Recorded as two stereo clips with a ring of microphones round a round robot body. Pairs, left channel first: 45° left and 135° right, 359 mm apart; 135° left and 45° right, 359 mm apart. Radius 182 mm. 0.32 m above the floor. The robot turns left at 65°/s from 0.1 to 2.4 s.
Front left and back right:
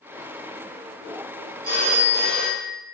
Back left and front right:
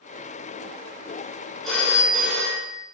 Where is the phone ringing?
135° right, 0.7 m; by 2.9 s 175° left, 0.7 m.